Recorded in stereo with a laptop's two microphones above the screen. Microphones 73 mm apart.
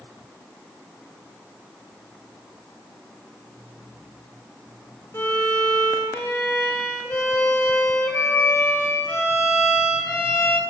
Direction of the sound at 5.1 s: 40° left (ahead or behind).